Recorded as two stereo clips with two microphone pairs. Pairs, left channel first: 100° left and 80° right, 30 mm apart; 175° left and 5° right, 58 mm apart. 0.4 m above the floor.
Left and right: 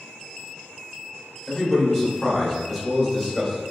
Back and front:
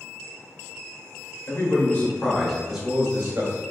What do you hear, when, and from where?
1.5 s a man speaking: 175° right, 1.3 m; by 3.6 s 15° left, 1.4 m